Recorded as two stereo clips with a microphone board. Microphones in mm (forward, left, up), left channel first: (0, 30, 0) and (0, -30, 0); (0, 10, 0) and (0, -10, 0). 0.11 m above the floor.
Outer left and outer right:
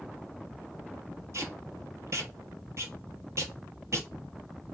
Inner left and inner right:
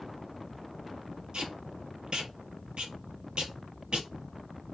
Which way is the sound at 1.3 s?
55° right (ahead or behind).